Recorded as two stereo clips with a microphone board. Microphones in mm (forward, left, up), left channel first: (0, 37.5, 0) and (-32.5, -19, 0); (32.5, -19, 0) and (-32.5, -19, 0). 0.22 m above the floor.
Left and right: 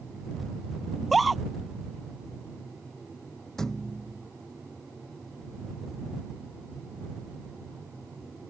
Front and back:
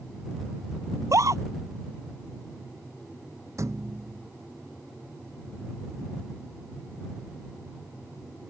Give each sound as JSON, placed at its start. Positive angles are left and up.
{"t": 0.9, "sound": "a scream", "azimuth_deg": 150}
{"t": 3.6, "sound": "a thud", "azimuth_deg": 145}